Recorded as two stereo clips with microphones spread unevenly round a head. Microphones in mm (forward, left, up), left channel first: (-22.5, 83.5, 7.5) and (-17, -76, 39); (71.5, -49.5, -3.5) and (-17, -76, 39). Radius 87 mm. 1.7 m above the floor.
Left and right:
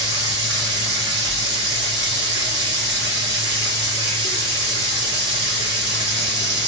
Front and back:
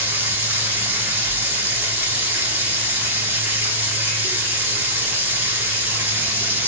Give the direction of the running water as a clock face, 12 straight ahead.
3 o'clock.